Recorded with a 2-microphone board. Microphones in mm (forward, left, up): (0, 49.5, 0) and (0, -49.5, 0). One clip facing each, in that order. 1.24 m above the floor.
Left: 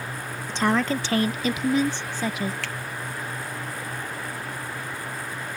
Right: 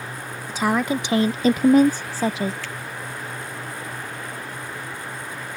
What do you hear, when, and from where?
0.5 s a woman speaking: 5° right (ahead or behind); by 2.5 s 25° right (ahead or behind)
2.6 s a finger snap: 85° left